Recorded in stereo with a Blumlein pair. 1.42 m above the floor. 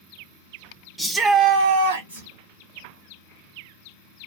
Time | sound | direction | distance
1.0 | a shout | straight ahead | 0.9 m